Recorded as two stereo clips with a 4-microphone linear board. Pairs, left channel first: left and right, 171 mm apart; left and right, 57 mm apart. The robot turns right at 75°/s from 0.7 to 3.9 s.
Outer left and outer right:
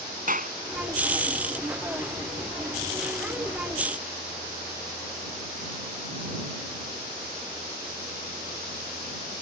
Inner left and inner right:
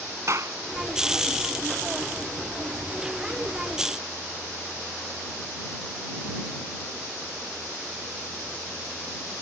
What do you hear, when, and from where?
0.3 s a clap: 55° right (ahead or behind)